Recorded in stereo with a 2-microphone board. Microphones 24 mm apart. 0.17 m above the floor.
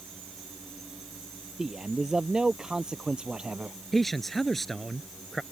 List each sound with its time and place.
1.6 s a man speaking: 25° right (ahead or behind); by 3.8 s 40° right (ahead or behind)
3.9 s a man speaking: 10° left (ahead or behind)